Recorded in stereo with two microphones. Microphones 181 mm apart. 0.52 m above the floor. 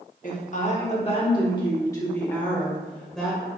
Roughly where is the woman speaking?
Left.